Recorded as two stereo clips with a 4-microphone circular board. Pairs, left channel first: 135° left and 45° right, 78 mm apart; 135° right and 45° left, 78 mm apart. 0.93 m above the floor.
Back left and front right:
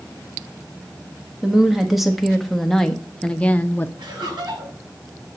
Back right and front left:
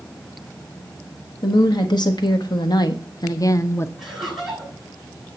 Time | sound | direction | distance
1.4 | a woman speaking | 130° right | 1.7 m
4.0 | laughter | 40° right | 5.5 m